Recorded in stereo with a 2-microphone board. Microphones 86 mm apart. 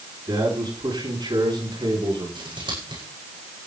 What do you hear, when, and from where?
0.3 s a man speaking: 50° right (ahead or behind), 8.5 m; by 2.2 s 60° right (ahead or behind), 8 m
2.4 s scissors: 60° right (ahead or behind), 9 m